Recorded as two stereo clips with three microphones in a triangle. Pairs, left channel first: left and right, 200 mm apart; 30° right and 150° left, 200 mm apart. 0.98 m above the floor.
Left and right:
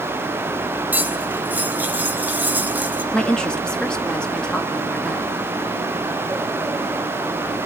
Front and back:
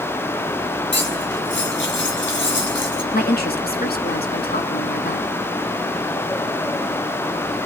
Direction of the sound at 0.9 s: 10° right.